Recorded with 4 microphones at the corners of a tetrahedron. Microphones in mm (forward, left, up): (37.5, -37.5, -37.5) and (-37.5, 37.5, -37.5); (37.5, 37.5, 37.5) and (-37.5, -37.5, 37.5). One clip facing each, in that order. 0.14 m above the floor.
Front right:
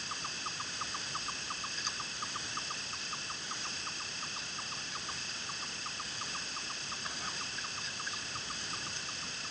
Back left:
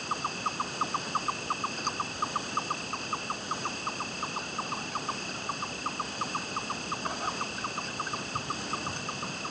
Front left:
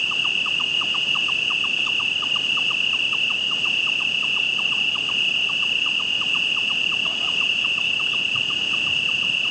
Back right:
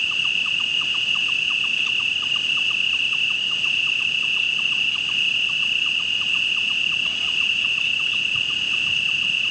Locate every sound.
0.0 s an insect: 100° left